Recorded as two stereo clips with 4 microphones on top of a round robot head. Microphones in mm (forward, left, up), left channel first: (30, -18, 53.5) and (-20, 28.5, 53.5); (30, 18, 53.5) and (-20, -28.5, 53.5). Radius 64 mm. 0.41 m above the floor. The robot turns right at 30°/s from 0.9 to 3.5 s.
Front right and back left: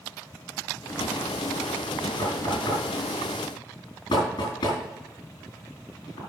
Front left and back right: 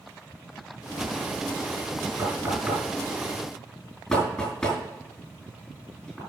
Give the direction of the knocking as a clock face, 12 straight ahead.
2 o'clock.